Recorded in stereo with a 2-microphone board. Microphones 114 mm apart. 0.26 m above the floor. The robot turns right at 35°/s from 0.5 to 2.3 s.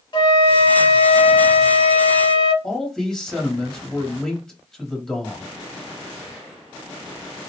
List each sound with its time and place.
0.1 s a flute: 55° left, 0.7 m; by 2.5 s 120° left, 0.7 m
2.6 s a man speaking: 5° left (ahead or behind), 1.1 m